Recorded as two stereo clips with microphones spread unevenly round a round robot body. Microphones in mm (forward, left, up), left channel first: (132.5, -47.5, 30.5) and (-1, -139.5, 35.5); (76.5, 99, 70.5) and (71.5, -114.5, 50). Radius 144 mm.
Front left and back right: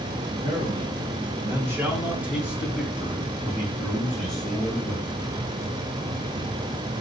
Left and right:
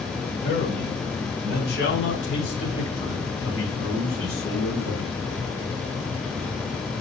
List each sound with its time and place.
0.4 s a man speaking: 155° left, 2.5 m; by 5.1 s 100° left, 3.5 m